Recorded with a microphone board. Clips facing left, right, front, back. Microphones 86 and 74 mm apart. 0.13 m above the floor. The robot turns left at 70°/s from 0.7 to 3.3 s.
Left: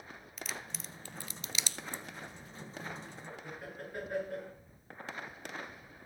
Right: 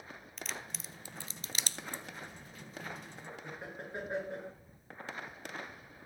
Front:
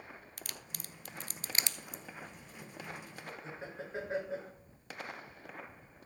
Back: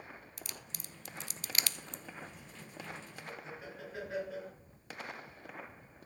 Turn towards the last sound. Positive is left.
turn(degrees=-40)